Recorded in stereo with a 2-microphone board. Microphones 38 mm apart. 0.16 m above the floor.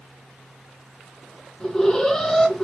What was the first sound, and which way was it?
An alarm, 15° left (ahead or behind).